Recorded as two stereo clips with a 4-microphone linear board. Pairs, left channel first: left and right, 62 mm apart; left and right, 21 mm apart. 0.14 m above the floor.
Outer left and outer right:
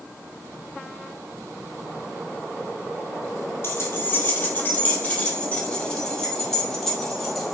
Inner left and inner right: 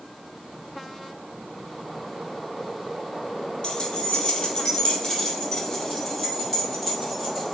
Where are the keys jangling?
40° left (ahead or behind), 2.5 m; by 7.5 s centre (ahead or behind), 3.5 m.